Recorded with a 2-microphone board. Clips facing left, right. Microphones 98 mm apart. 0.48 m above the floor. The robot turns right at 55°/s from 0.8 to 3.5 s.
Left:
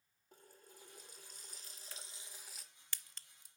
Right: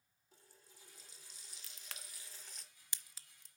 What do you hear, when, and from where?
0.3 s a running tap: 75° left, 0.9 m; by 2.6 s 175° left, 0.9 m
1.6 s a crack: 85° right, 0.5 m; by 3.5 s 10° left (ahead or behind), 0.5 m